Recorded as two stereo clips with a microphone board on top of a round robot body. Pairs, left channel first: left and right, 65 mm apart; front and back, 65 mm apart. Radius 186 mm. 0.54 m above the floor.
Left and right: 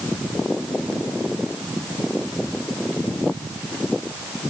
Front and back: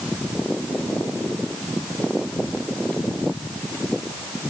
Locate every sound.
Only background noise.